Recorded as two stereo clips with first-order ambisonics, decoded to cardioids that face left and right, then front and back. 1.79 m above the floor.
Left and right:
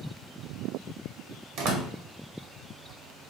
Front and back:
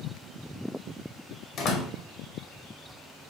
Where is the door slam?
55° right, 1.1 m.